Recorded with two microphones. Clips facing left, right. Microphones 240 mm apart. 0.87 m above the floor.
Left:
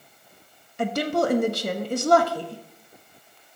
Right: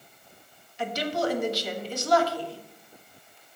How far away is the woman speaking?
About 1.0 m.